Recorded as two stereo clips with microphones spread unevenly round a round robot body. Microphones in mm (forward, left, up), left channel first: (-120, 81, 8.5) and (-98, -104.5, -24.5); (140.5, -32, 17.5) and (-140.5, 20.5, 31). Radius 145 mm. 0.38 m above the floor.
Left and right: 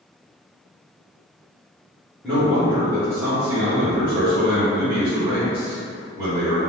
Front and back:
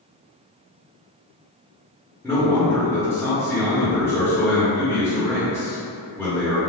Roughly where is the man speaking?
Right.